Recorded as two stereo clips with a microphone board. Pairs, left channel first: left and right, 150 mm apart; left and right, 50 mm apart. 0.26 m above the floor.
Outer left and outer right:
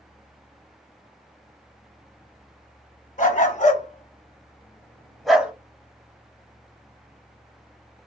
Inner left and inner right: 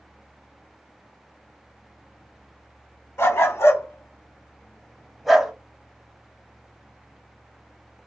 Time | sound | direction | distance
3.2 | a dog barking | 60° left (ahead or behind) | 0.9 m